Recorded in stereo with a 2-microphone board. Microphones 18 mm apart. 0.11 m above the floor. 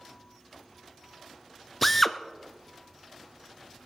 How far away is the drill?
About 0.6 m.